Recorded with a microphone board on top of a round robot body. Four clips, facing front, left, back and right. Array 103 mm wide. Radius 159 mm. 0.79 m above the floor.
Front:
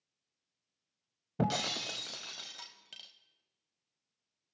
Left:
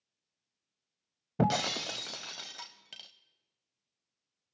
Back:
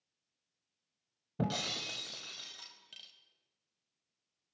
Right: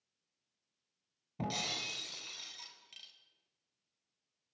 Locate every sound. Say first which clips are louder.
1.4 s breaking glass: left 11 dB, front 3 dB; 70° left, 0.8 m